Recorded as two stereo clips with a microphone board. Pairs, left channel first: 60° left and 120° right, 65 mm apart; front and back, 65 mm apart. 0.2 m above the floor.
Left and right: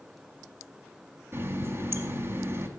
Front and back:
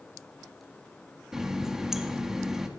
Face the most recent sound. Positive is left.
turn(degrees=-100)